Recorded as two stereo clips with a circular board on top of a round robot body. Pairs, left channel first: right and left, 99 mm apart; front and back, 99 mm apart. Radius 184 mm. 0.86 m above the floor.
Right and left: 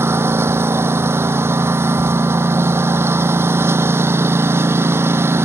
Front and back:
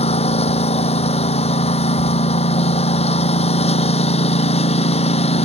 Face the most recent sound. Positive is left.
turn(degrees=20)